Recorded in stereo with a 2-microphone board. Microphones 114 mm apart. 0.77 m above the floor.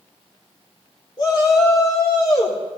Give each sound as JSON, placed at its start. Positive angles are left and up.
{"t": 1.2, "sound": "a shout", "side_deg": 45, "distance_m": 3.0}